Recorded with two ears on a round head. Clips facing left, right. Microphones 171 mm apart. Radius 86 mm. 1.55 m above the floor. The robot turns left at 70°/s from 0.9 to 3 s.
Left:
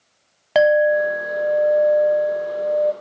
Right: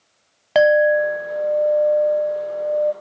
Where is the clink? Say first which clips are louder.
Right 1 dB; straight behind, 0.6 m; by 2.9 s 40° left, 0.6 m.